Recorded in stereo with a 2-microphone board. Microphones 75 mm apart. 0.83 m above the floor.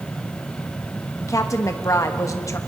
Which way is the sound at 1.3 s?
45° left (ahead or behind).